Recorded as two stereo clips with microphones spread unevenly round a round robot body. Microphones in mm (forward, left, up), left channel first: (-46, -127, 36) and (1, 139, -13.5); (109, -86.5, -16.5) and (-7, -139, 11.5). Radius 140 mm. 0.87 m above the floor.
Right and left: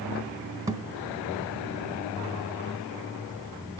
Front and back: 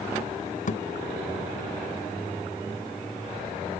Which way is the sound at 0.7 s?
5° right.